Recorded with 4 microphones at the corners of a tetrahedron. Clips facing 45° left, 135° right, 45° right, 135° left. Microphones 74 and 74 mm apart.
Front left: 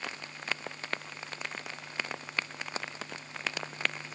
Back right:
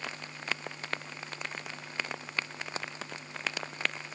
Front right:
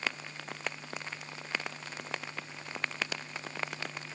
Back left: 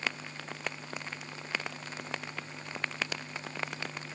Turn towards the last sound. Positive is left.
No sound to turn to.